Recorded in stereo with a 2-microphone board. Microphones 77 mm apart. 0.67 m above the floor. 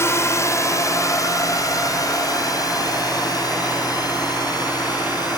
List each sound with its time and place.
0.0 s a drone: 35° left (ahead or behind); by 5.4 s 55° left (ahead or behind)